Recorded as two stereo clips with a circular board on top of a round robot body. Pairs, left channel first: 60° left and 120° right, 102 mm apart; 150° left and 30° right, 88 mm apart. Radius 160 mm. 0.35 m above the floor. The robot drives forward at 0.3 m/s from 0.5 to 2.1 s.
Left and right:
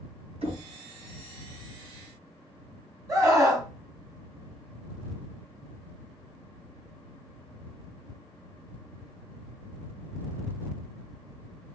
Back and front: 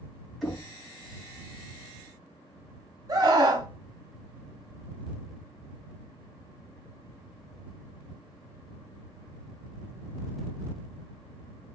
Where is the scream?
70° right, 1.6 m.